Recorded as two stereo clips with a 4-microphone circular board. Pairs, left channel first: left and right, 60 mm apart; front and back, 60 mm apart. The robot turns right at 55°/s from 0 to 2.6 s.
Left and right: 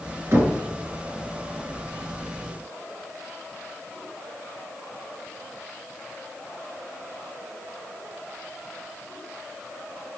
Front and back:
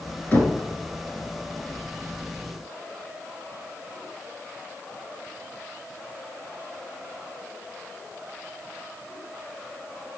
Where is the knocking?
55° right, 2.0 m; by 0.6 s 40° right, 2.0 m.